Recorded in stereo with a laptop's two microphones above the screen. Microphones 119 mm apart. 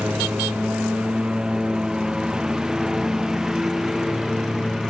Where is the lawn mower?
10° right (ahead or behind); by 4.9 s 5° right (ahead or behind).